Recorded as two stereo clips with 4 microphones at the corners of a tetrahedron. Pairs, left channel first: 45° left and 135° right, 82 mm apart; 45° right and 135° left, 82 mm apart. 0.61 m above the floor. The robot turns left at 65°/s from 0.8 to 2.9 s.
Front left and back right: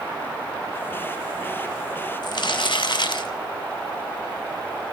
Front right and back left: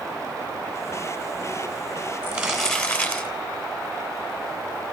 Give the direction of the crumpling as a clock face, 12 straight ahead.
10 o'clock.